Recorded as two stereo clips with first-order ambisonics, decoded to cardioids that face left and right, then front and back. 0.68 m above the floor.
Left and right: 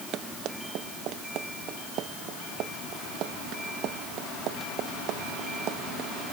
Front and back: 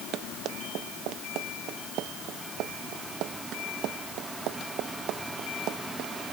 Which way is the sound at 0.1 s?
135° right.